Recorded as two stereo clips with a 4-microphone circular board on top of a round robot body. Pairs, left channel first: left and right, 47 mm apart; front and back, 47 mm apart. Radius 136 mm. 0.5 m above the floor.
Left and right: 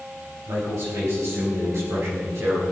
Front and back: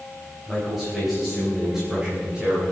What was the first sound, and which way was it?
A man speaking, 90° right.